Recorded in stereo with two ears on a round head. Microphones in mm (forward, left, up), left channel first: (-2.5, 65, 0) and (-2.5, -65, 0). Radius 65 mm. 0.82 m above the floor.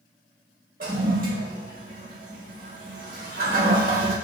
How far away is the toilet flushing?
About 1.0 m.